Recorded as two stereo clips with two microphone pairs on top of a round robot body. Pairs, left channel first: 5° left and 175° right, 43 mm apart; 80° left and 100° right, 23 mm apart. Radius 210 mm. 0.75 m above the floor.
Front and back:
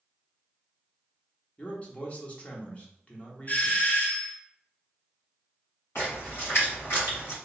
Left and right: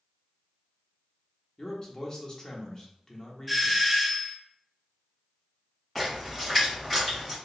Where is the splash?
10° right, 2.0 m.